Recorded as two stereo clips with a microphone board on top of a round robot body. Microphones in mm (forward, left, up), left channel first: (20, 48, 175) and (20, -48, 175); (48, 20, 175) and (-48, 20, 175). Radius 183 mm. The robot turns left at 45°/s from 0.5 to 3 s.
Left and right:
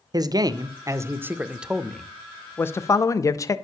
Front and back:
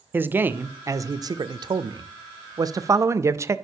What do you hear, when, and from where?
0.1 s a man speaking: 115° right, 0.6 m; by 3.6 s 130° left, 0.6 m